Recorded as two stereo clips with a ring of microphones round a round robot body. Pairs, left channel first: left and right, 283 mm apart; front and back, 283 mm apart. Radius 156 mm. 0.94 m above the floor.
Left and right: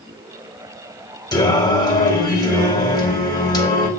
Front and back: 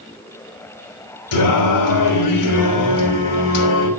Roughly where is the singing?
Ahead.